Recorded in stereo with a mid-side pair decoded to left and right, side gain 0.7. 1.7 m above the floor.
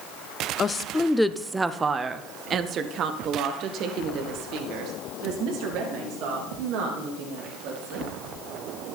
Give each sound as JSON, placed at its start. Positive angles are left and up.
{"t": 0.6, "sound": "a woman speaking", "azimuth_deg": 30, "distance_m": 0.7}